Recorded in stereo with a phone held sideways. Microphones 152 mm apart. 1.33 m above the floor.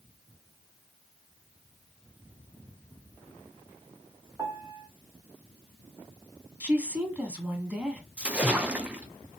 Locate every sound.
4.4 s a piano: 15° right (ahead or behind), 1.1 m
6.6 s a woman speaking: 10° right (ahead or behind), 1.3 m
8.2 s a splash: 10° right (ahead or behind), 0.5 m